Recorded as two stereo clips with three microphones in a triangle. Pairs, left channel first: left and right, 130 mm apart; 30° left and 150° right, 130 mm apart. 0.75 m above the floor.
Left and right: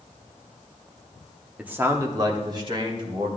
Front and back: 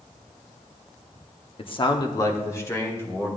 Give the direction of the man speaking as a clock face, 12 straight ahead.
12 o'clock.